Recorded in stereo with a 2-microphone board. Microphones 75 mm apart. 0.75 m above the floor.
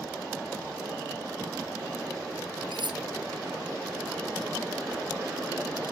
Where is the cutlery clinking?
85° right.